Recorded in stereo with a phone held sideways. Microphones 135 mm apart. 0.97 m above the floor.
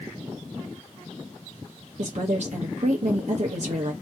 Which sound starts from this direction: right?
A woman speaking, at 2.0 s.